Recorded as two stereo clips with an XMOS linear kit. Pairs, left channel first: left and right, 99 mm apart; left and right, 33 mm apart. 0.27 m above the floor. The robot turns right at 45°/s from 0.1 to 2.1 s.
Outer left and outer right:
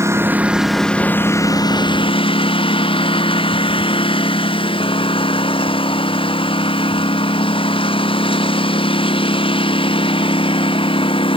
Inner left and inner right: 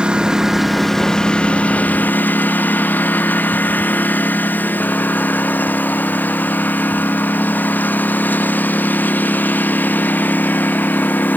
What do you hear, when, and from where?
0.0 s a lawn mower: 30° right; by 11.4 s 60° left